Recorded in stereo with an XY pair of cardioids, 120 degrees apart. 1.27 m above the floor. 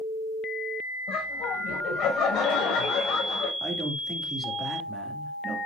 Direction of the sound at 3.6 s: 25° right.